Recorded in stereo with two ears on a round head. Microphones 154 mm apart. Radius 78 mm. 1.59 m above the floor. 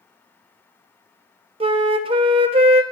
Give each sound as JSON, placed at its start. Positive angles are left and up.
{"t": 1.6, "sound": "a flute", "side_deg": -30, "distance_m": 0.6}